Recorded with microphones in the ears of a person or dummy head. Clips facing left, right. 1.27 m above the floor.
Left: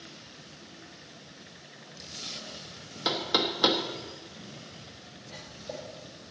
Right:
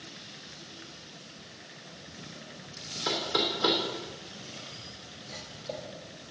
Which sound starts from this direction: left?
Knocking, at 3.0 s.